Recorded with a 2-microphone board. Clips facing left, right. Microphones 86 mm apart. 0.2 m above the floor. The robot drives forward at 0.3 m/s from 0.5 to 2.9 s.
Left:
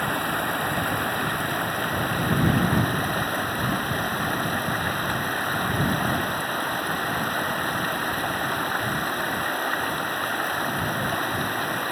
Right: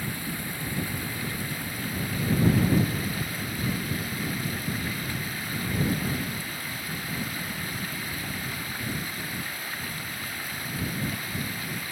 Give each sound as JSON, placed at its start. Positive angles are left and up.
{"t": 0.0, "sound": "running water", "side_deg": 65}